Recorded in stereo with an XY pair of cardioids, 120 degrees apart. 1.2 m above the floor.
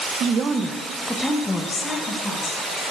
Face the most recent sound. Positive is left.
turn(degrees=35)